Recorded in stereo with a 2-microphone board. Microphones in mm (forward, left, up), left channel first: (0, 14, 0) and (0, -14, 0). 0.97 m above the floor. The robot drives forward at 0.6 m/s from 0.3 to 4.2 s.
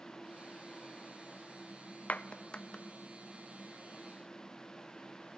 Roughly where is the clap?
Left.